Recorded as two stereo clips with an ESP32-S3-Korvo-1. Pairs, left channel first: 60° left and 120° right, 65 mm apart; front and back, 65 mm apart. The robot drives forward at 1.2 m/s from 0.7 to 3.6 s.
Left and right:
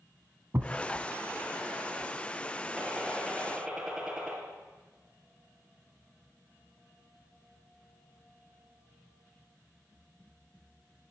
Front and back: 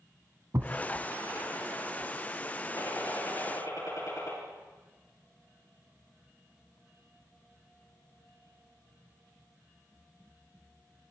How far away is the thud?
About 1.2 m.